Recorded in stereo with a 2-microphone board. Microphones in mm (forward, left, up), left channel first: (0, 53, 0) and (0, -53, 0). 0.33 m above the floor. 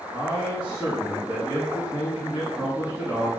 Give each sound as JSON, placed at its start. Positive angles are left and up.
{"t": 0.1, "sound": "a man speaking", "side_deg": -20, "distance_m": 3.5}